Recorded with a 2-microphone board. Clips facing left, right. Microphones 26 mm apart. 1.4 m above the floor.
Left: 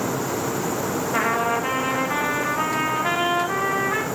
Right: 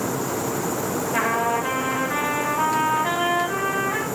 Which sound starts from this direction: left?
A trumpet, at 1.1 s.